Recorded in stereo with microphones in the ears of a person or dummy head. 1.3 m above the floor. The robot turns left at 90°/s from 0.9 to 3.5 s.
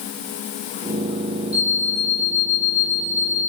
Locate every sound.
1.5 s an alarm clock: 175° right, 5 m; by 3.4 s 15° left, 5 m